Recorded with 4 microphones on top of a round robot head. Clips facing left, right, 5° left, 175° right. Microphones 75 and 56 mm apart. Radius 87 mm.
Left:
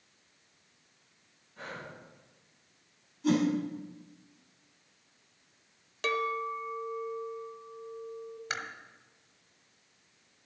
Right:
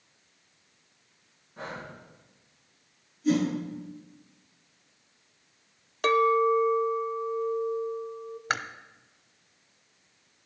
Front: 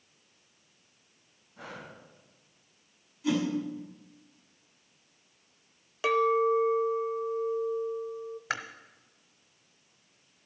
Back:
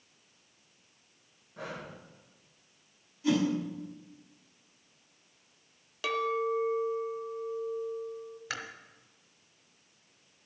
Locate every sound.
1.6 s breathing: 150° right, 2.5 m
3.2 s a whoosh: 100° left, 6 m
6.0 s a clink: 60° right, 0.9 m
8.5 s chewing: 60° right, 1.0 m